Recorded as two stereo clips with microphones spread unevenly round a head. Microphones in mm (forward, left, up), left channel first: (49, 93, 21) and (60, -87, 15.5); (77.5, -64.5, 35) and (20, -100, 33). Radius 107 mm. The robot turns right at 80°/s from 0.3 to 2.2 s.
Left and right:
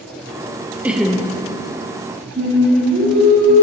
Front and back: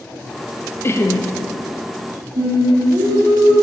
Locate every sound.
0.8 s laughter: 10° right, 0.9 m; by 1.3 s 25° left, 0.9 m
2.4 s singing: 135° right, 3 m